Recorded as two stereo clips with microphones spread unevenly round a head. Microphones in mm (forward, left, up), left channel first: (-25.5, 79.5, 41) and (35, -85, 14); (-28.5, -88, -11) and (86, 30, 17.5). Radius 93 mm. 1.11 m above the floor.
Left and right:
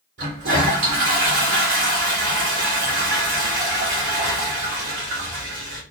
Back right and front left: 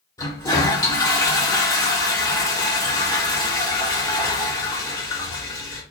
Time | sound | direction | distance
0.2 | a toilet flushing | 70° right | 3.5 m